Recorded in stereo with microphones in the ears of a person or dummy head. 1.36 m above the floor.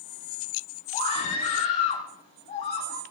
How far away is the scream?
About 1.8 m.